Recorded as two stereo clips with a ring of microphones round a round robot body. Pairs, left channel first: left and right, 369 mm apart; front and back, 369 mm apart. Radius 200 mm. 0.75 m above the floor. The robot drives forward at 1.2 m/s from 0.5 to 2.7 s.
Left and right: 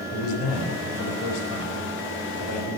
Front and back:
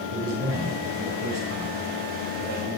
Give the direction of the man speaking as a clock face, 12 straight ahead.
8 o'clock.